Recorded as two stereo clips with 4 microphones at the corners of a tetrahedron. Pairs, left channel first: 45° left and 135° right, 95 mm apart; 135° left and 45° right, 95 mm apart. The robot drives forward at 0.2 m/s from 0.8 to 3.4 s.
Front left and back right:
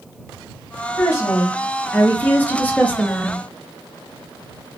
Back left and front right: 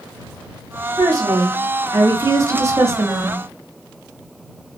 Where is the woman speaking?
10° right, 0.9 m; by 3.4 s 30° right, 0.6 m.